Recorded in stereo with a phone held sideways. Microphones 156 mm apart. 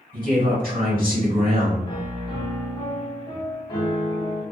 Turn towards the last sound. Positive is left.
turn(degrees=30)  # may be behind; listen again after turning